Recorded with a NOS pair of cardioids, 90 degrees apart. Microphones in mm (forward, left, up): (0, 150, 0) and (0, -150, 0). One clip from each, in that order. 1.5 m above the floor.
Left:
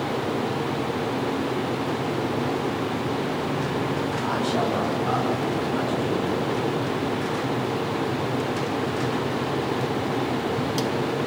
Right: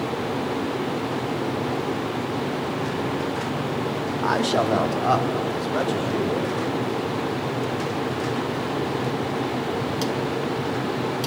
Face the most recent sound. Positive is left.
turn(degrees=-55)